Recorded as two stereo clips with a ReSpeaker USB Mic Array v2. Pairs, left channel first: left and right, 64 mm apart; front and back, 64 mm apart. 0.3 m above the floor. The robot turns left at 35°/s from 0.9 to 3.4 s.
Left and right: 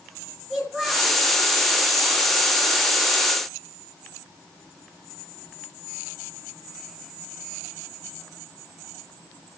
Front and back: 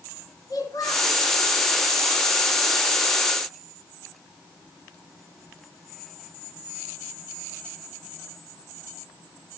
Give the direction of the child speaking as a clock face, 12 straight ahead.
12 o'clock.